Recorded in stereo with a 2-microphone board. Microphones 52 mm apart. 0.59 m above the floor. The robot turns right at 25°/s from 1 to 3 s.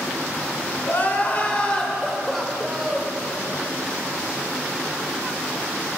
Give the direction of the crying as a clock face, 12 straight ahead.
7 o'clock.